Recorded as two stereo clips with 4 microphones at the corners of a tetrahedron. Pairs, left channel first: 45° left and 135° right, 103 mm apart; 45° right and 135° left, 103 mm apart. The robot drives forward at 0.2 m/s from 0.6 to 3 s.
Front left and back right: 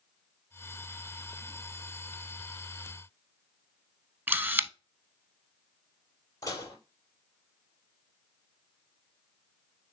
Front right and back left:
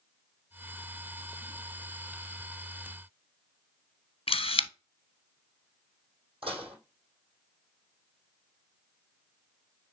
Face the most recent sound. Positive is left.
turn(degrees=105)